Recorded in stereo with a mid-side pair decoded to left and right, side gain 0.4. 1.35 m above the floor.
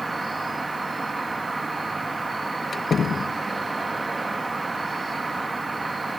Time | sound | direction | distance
0.0 | an insect | 20° right | ?
2.7 | a door slam | 50° left | ?